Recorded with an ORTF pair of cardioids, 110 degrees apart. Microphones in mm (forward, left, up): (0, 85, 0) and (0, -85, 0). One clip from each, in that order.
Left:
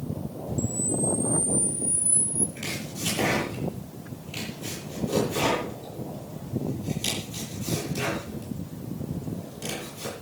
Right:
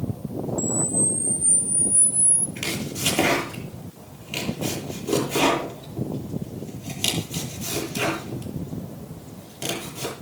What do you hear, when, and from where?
0.6 s a camera shutter: 50° right, 3 m
2.6 s chopping: 65° right, 9.5 m